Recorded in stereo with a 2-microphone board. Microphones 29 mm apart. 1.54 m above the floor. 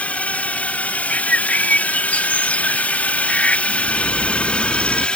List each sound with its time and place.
0.0 s a drone: 65° left (ahead or behind); by 5.2 s 45° left (ahead or behind)
1.1 s a bird: 65° left (ahead or behind)
3.7 s a bird: 65° left (ahead or behind)